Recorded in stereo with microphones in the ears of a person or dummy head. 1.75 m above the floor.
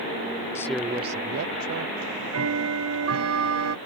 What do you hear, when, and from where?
0.6 s a man speaking: 15° left (ahead or behind); by 1.9 s 75° right (ahead or behind)
2.0 s ticking: 70° right (ahead or behind)